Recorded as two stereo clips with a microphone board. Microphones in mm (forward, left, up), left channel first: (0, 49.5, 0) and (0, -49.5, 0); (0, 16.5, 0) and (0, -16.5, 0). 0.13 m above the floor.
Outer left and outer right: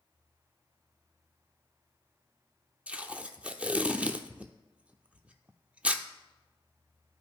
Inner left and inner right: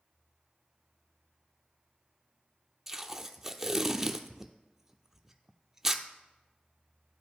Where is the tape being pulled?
15° right (ahead or behind), 0.6 m.